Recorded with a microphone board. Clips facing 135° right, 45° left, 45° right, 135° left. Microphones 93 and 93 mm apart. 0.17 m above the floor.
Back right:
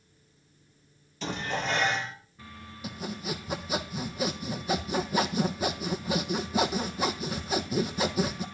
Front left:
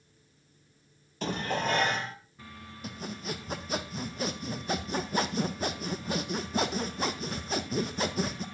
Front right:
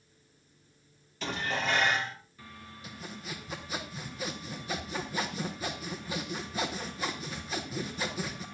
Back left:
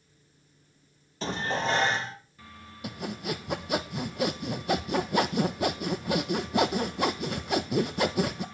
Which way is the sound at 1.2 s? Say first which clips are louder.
Front left 1 dB, back left 3 dB; 80° left.